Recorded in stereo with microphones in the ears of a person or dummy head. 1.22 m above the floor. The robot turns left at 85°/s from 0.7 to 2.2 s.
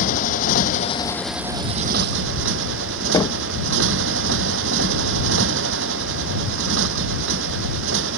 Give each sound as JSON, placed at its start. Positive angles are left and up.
{"t": 0.0, "sound": "a motorcycle", "azimuth_deg": 50}
{"t": 3.1, "sound": "knocking", "side_deg": 20}